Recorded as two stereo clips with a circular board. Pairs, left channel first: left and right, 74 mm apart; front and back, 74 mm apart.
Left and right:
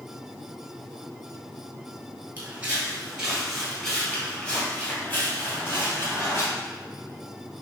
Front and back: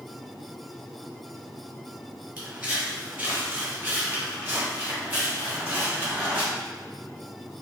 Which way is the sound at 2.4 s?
130° right.